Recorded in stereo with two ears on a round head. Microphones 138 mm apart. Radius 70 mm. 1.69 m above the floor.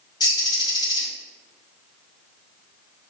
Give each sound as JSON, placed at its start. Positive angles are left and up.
{"t": 0.2, "sound": "a bird", "side_deg": 25, "distance_m": 3.0}